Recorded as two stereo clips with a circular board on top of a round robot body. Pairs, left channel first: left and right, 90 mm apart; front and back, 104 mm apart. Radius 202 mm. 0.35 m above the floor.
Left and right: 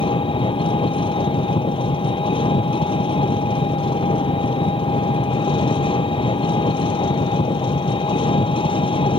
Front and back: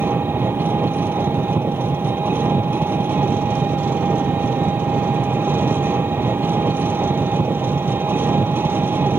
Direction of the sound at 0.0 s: 110° left.